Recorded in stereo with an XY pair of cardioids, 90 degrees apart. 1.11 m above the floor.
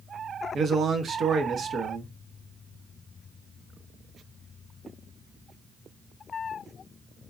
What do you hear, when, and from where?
0.5 s a man speaking: 60° right, 1.1 m